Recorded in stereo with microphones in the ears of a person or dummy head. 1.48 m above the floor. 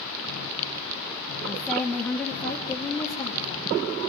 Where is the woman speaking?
Centre (ahead or behind), 1.3 m; by 3.7 s 25° left (ahead or behind), 3 m.